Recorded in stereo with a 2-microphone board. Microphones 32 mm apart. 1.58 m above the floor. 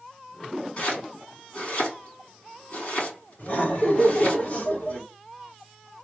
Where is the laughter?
45° left (ahead or behind), 2 m.